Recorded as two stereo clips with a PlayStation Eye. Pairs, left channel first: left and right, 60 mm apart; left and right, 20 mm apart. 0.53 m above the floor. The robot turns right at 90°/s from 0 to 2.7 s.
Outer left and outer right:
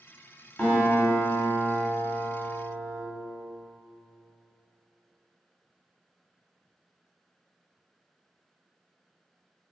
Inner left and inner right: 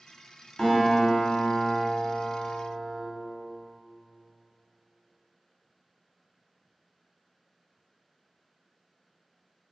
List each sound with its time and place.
0.6 s a guitar: 20° left, 1.0 m; by 3.0 s 150° right, 1.0 m